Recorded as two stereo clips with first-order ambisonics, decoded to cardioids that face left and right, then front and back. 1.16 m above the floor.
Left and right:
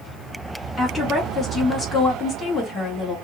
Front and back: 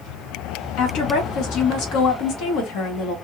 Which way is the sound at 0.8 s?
15° left.